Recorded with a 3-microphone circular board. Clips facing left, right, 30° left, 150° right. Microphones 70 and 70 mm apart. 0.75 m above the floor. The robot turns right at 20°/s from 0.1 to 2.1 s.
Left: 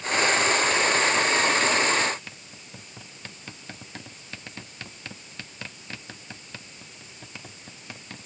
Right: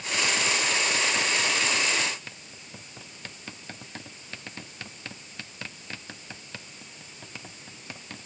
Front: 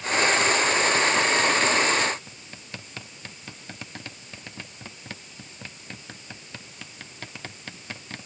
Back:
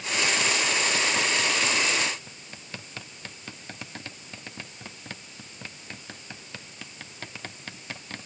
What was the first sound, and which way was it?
Only background noise.